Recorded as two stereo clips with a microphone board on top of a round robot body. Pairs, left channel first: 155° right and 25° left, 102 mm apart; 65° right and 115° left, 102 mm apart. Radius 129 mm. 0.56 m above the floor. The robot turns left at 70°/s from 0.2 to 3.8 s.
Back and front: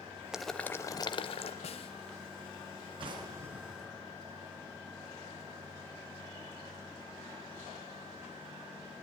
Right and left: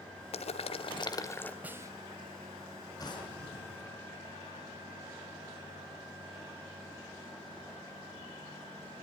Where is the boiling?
60° right, 1.9 m; by 1.5 s 145° right, 1.9 m.